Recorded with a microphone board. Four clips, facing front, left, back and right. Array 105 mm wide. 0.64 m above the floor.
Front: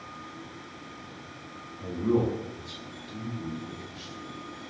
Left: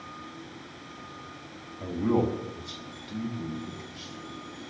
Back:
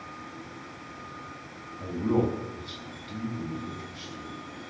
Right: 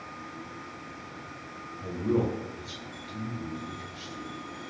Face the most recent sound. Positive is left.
turn(degrees=140)